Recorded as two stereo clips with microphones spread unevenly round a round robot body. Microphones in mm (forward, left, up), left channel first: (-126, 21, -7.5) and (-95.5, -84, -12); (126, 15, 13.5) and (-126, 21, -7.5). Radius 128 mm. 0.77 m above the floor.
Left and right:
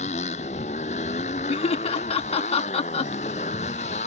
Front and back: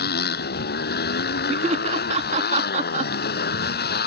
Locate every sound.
0.0 s a motorcycle: 50° left
1.5 s laughter: 120° left